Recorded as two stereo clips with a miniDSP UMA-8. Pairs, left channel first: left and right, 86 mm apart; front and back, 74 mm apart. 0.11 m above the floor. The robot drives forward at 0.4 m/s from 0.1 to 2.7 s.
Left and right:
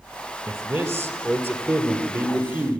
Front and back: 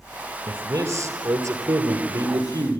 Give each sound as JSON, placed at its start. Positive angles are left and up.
{"t": 0.5, "sound": "a man speaking", "azimuth_deg": -140, "distance_m": 1.8}